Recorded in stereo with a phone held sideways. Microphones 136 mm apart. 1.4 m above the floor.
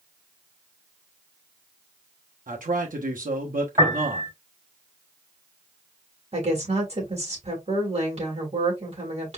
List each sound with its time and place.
2.5 s a man speaking: 80° right, 1.0 m
3.8 s a piano: 35° right (ahead or behind), 3.5 m
6.3 s a woman speaking: 50° right (ahead or behind), 2.5 m